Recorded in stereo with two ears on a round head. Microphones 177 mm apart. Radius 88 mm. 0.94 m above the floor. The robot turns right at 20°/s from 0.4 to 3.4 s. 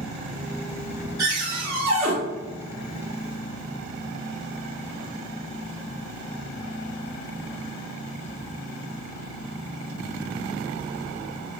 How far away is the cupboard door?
About 1.8 m.